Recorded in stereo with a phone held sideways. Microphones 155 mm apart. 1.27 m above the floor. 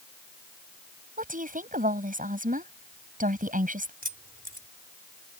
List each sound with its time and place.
1.2 s a woman speaking: 60° right (ahead or behind)
4.0 s keys jangling: 65° right (ahead or behind)